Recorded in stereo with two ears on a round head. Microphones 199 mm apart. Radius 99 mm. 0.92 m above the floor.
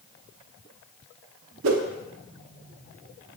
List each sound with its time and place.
1.6 s a whoosh: 65° right (ahead or behind), 0.6 m